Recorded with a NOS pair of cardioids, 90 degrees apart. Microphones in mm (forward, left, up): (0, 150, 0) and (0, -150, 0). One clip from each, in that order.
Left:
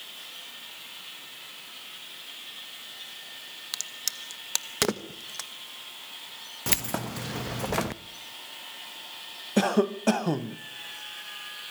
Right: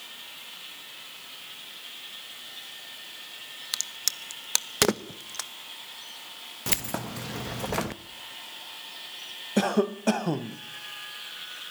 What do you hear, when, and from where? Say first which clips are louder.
3.7 s a crack: right 3 dB; 15° right, 1.0 m
6.7 s keys jangling: left 1 dB; 5° left, 0.7 m
9.6 s a cough: left 1 dB; 5° left, 0.8 m